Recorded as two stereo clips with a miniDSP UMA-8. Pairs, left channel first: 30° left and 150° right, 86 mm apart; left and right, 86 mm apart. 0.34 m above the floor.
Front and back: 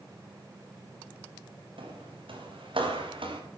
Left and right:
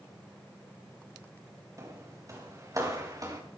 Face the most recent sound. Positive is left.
turn(degrees=-140)